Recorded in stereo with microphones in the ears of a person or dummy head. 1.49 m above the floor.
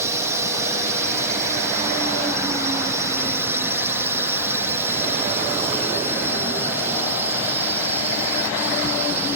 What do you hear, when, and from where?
0.0 s a drone: 15° right (ahead or behind); by 9.4 s 10° right (ahead or behind)